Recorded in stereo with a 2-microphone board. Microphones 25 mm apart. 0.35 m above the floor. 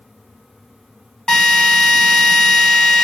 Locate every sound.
1.3 s a drill: 30° left (ahead or behind), 1.9 m